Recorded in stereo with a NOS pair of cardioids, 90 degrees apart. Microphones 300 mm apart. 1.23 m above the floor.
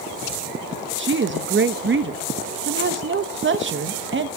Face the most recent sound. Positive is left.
turn(degrees=-35)